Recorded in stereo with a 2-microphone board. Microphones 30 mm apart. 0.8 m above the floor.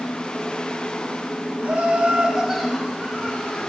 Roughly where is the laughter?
Right.